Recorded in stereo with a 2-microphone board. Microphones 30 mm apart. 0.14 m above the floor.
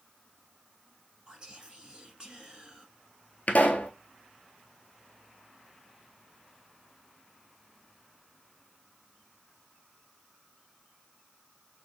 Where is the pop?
65° left (ahead or behind), 0.9 m.